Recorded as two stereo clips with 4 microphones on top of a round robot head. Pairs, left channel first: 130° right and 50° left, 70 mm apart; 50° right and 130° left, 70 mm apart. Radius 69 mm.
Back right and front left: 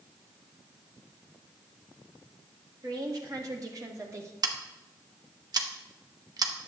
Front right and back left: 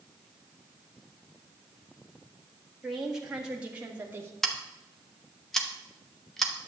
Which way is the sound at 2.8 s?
45° left.